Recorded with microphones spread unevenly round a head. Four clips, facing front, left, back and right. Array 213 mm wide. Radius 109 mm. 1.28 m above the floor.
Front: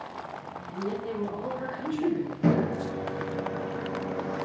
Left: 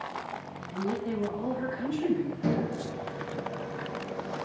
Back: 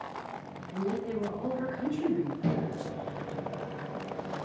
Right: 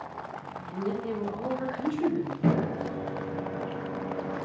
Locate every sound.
0.7 s a woman speaking: 95° right, 4 m
2.4 s a microwave: 10° right, 0.5 m